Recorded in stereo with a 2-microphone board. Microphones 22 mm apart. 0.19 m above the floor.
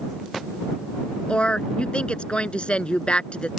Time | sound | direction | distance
1.3 | a woman speaking | 60° left (ahead or behind) | ?